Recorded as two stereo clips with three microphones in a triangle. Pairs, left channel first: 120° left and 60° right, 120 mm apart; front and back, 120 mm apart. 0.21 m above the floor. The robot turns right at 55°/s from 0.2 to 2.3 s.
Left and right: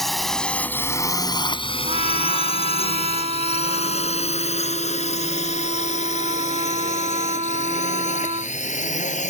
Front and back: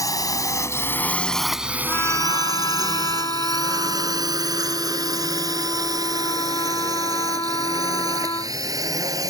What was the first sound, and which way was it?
A drone, 35° left.